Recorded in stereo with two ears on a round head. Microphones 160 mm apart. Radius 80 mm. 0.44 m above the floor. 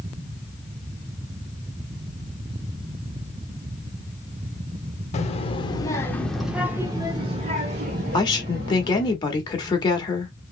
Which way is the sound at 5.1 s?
40° left (ahead or behind).